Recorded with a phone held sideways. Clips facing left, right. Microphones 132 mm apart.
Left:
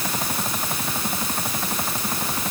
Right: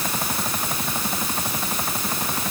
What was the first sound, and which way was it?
Only background noise.